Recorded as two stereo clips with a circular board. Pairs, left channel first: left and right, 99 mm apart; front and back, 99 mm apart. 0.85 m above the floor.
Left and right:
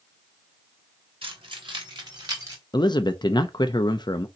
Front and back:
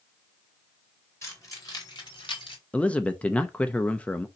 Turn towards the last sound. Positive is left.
turn(degrees=70)